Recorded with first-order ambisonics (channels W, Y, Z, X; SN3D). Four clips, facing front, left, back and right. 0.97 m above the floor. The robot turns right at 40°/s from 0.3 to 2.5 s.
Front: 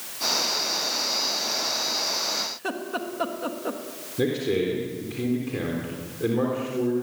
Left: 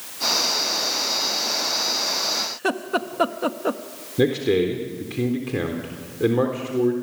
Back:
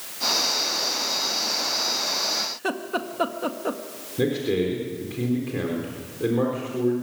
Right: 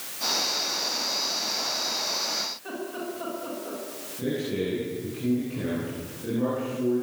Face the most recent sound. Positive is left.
turn(degrees=95)